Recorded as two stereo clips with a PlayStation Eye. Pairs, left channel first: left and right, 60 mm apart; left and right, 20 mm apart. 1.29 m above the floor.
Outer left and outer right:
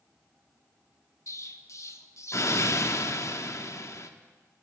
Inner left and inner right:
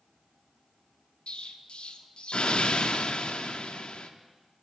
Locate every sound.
1.3 s an explosion: 55° left (ahead or behind), 0.7 m